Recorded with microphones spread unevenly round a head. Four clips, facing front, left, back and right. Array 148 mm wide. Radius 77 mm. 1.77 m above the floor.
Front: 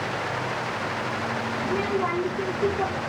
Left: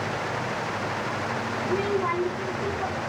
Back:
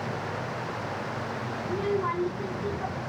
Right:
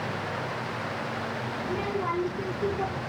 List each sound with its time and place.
1.6 s a child speaking: 5° right, 4 m; by 3.0 s 15° right, 4 m